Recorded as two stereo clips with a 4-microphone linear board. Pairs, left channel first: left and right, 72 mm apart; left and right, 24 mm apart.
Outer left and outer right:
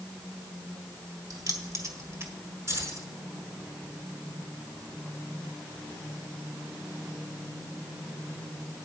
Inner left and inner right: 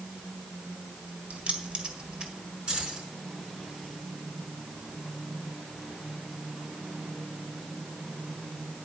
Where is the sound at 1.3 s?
70° right (ahead or behind), 1.9 m; by 2.3 s 35° right (ahead or behind), 1.7 m.